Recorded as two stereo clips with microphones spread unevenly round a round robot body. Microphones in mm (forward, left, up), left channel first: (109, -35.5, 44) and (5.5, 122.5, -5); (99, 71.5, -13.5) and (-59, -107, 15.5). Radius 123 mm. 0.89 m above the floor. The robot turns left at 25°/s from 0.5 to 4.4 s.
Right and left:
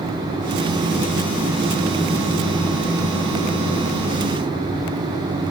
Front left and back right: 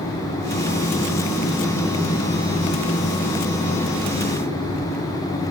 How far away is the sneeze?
I don't hear a sneeze.